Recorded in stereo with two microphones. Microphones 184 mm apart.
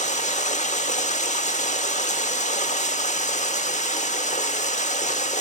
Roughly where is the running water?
Left.